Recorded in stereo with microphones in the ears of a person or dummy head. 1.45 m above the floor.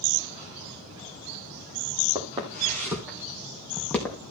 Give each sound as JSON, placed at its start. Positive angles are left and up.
{"t": 2.1, "sound": "footsteps", "side_deg": -20, "distance_m": 3.0}